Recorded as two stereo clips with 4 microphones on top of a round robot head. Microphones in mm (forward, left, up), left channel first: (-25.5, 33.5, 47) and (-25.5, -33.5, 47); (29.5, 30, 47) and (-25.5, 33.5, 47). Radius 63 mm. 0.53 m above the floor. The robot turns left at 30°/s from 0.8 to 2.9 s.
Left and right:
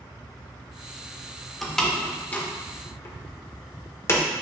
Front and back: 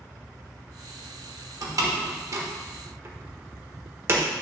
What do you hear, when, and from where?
1.6 s a door slam: straight behind, 1.4 m; by 4.2 s 140° left, 1.4 m